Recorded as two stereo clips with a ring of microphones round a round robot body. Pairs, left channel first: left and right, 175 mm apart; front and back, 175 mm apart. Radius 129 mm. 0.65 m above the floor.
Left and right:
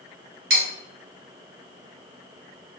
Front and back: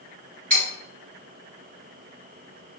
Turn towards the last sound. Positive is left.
turn(degrees=-85)